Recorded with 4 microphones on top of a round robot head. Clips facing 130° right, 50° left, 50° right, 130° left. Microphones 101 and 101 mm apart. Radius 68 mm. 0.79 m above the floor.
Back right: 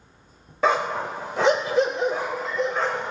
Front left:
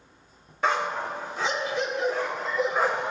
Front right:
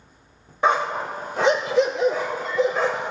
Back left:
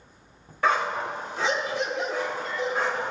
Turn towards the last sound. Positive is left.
turn(degrees=-25)